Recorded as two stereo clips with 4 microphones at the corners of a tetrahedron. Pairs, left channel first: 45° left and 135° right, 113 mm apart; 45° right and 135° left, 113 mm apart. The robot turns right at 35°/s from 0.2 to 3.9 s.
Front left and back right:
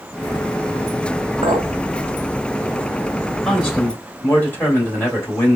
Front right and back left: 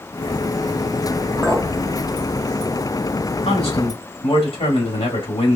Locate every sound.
1.4 s a clink: 130° right, 1.7 m; by 1.7 s 120° right, 1.7 m
3.5 s a man speaking: 45° right, 2 m; by 5.6 s 30° right, 2 m